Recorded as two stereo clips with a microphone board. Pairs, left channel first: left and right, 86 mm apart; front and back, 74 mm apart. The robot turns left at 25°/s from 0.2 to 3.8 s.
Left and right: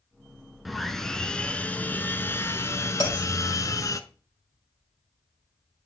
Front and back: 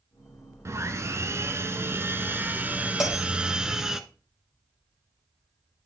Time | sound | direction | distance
0.7 | sawing | straight behind | 0.7 m
3.0 | a bell | 95° left | 3.5 m